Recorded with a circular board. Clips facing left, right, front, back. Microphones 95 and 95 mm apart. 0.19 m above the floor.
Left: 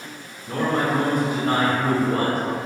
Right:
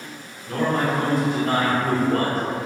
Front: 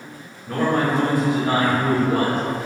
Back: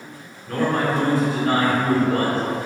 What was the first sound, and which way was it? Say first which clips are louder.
A man speaking: even, front 1 dB; 40° left.